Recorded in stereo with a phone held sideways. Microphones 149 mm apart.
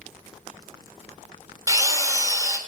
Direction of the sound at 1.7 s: 25° right (ahead or behind).